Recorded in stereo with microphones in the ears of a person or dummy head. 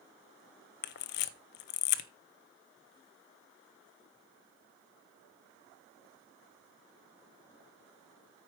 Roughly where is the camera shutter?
Left.